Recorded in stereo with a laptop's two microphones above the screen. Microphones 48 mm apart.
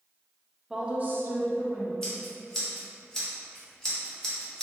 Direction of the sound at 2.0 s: 10° left (ahead or behind).